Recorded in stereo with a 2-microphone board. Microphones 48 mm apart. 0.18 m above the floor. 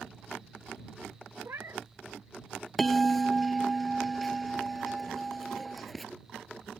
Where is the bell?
Centre (ahead or behind).